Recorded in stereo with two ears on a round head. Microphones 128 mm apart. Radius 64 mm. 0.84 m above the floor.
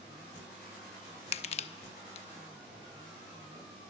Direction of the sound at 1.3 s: 45° left (ahead or behind).